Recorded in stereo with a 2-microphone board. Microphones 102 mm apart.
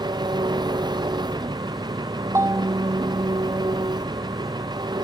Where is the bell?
25° right (ahead or behind).